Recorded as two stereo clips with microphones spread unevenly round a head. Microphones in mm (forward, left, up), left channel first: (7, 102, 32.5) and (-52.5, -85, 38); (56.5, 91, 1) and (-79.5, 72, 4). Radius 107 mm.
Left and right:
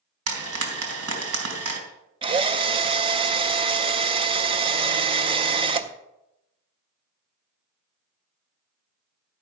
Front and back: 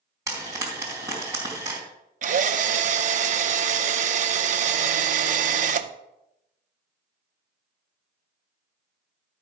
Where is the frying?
100° right, 2.5 m.